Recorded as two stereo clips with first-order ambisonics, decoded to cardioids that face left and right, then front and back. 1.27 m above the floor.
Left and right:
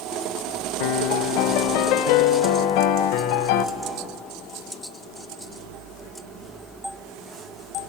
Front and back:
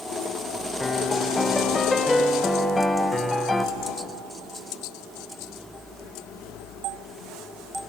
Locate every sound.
0.8 s a piano: 80° left, 1.0 m